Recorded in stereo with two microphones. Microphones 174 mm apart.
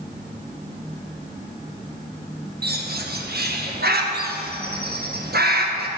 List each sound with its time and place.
2.6 s a bird: 65° right (ahead or behind), 1.6 m